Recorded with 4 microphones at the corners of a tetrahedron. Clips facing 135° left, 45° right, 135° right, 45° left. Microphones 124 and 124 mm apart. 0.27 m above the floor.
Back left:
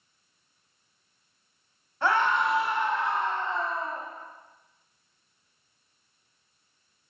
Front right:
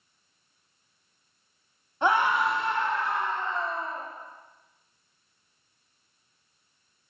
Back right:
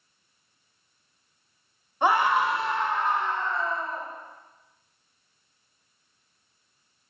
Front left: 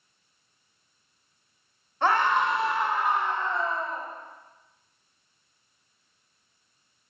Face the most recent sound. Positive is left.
turn(degrees=110)